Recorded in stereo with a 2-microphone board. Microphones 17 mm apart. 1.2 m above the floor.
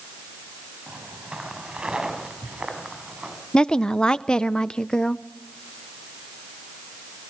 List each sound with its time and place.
0.9 s footsteps: 70° right (ahead or behind), 5 m
3.5 s a woman speaking: 50° left (ahead or behind), 0.6 m